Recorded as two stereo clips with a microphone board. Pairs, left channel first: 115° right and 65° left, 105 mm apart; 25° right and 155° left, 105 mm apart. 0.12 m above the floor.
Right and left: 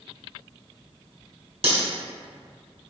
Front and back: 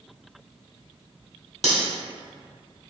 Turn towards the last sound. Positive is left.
turn(degrees=65)